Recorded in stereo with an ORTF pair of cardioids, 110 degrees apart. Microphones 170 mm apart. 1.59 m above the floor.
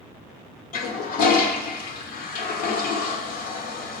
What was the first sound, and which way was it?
A toilet flushing, 60° left.